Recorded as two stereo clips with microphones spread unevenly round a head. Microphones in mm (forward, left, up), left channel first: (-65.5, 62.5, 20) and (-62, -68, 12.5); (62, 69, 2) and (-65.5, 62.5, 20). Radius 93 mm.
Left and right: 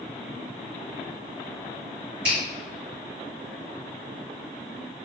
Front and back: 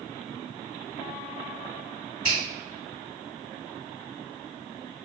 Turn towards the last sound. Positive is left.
turn(degrees=-65)